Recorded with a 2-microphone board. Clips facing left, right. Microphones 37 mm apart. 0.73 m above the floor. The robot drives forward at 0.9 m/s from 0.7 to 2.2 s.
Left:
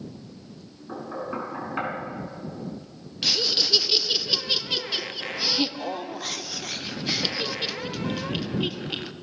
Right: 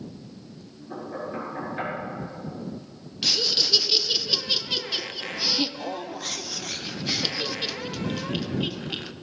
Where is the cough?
No cough in this recording.